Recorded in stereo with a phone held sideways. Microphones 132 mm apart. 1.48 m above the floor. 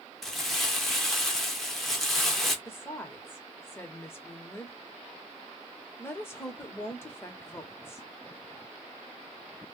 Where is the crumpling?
Centre (ahead or behind), 0.8 m.